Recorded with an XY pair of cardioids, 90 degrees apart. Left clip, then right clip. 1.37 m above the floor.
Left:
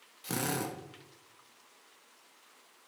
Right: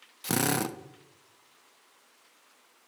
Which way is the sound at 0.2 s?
65° right.